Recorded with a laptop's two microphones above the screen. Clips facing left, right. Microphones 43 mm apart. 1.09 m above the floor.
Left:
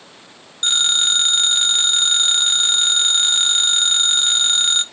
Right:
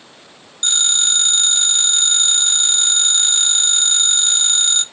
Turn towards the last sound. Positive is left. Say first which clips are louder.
# left 2 dB
turn(degrees=20)  # may be behind; listen again after turning